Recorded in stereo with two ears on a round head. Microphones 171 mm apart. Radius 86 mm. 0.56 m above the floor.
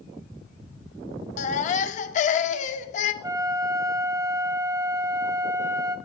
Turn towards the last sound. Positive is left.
turn(degrees=-20)  # may be behind; listen again after turning